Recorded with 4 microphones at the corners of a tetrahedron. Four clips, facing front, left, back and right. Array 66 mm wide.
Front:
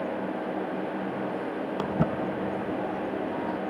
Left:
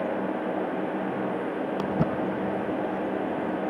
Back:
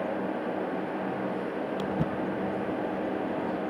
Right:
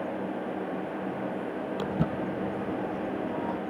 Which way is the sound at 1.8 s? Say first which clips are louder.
Left 3 dB, front 4 dB; 45° left.